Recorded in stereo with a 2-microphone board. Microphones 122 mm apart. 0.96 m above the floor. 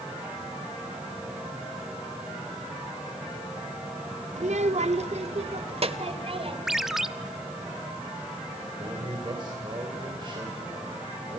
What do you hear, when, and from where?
4.4 s a child speaking: 75° right (ahead or behind), 0.9 m; by 6.6 s 50° right (ahead or behind), 3 m
6.7 s a ringtone: 5° right (ahead or behind), 1.0 m
8.8 s a man speaking: 40° right (ahead or behind), 3.5 m